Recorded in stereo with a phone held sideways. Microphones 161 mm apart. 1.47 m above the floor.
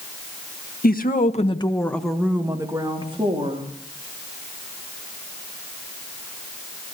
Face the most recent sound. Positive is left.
turn(degrees=-35)  # may be behind; listen again after turning